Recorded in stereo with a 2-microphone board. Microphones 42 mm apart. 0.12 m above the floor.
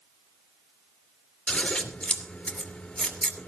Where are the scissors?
25° left (ahead or behind), 2.5 m.